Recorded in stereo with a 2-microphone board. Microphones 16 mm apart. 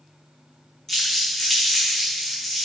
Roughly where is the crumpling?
Left.